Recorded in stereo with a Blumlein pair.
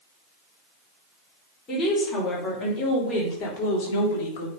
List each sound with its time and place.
1.7 s a woman speaking: 20° left, 4.5 m; by 4.5 s 50° left, 3 m